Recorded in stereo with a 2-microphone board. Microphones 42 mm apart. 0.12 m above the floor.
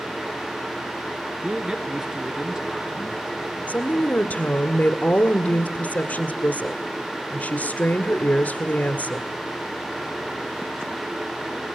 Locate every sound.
1.4 s a man speaking: 20° right (ahead or behind), 1.4 m
3.7 s a woman speaking: 45° left (ahead or behind), 1.5 m